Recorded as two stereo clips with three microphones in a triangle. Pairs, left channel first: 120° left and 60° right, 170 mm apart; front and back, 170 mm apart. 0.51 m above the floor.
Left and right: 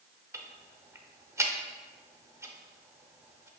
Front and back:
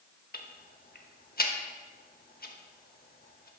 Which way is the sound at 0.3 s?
10° left.